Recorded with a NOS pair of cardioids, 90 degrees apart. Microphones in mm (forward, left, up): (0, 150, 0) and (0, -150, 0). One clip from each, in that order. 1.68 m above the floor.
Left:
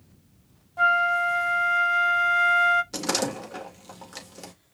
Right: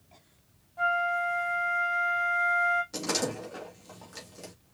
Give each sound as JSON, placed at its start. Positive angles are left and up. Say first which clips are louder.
{"t": 0.8, "sound": "a flute", "louder": "left 6 dB", "azimuth_deg": 45, "distance_m": 0.8}
{"t": 2.9, "sound": "a door slam", "louder": "left 4 dB", "azimuth_deg": 40, "distance_m": 2.0}